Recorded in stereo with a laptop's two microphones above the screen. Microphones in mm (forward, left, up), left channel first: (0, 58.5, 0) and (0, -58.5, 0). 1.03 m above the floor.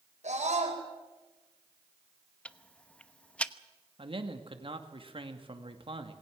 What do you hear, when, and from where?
0.2 s a scream: 80° right, 4 m
2.5 s ticking: 10° left (ahead or behind), 0.9 m
4.0 s a man speaking: 50° right (ahead or behind), 2 m